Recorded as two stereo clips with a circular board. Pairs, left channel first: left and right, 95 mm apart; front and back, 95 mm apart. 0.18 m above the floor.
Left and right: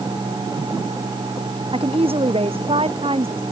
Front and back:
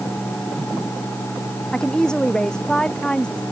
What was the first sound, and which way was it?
A woman speaking, 80° right.